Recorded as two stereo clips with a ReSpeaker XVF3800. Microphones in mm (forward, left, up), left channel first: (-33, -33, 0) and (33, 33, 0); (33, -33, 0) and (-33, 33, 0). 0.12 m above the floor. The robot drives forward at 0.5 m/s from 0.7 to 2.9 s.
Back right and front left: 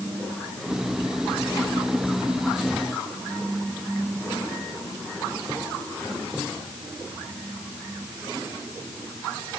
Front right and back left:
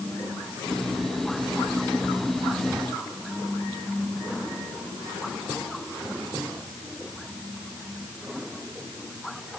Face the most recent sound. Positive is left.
No sound to turn to.